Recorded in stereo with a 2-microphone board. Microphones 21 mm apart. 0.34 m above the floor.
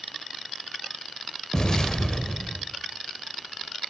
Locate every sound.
1.5 s an explosion: 30° left (ahead or behind), 0.7 m